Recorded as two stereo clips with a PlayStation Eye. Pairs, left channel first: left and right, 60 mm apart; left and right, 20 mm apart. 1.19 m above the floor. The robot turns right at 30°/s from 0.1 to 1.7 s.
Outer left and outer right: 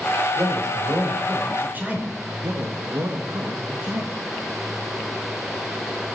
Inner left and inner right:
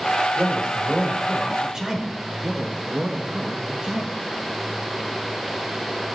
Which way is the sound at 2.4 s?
65° right (ahead or behind).